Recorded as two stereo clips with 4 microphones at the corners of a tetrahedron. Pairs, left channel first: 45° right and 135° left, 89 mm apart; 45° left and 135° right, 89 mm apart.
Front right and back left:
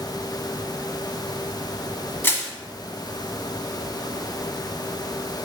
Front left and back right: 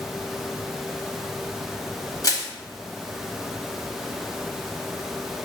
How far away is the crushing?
About 1.2 m.